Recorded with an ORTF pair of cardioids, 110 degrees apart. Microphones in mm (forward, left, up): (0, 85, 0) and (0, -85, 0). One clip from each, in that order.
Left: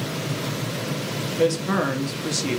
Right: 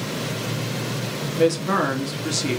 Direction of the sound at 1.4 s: 5° right.